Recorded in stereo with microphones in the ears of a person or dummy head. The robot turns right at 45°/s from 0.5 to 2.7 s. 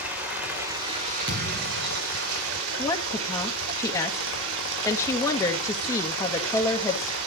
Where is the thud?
160° right, 5 m; by 2.0 s 125° right, 5 m.